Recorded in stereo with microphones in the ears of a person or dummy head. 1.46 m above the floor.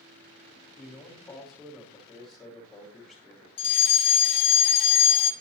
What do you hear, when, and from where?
0.8 s a man speaking: 5° left (ahead or behind), 1.5 m
3.6 s a fire alarm: 30° left (ahead or behind), 0.8 m